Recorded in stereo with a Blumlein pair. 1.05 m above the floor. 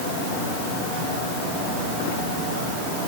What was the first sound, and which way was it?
Only background noise.